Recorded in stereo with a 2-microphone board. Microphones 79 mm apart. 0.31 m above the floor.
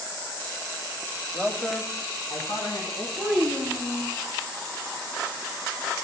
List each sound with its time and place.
1.3 s a man speaking: 5° left (ahead or behind), 1.2 m; by 3.1 s 60° left (ahead or behind), 3 m
3.2 s a child speaking: centre (ahead or behind), 1.1 m